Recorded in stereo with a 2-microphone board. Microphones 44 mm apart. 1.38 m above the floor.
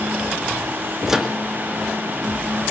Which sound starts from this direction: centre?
A microwave, at 1.1 s.